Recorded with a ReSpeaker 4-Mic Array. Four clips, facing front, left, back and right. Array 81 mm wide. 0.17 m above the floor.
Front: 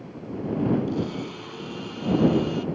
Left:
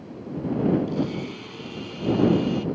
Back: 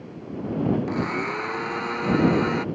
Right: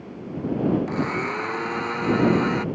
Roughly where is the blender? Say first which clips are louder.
Right 2 dB, back 3 dB; behind right.